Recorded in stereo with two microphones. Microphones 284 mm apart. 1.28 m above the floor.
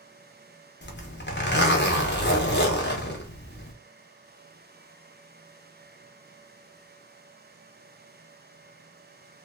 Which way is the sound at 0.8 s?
40° left (ahead or behind).